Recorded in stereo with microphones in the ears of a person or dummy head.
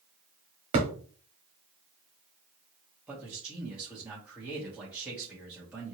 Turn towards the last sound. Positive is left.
turn(degrees=-5)  # may be behind; listen again after turning